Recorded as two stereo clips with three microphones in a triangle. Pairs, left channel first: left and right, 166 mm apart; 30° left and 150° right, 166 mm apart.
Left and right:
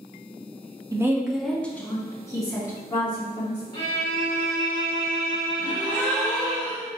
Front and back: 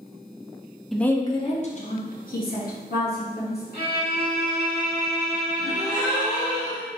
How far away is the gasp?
About 1.8 m.